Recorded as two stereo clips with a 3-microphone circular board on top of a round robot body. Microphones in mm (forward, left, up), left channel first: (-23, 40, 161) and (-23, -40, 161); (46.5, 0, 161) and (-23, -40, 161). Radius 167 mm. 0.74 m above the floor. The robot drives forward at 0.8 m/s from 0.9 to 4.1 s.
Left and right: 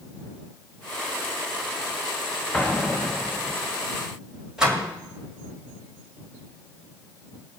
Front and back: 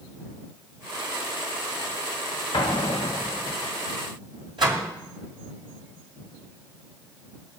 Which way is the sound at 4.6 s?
170° right.